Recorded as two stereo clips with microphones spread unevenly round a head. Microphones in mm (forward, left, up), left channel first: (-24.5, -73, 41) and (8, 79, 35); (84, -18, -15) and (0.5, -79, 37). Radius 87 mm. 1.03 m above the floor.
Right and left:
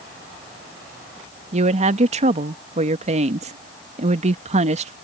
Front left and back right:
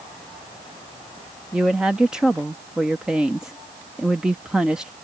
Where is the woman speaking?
125° left.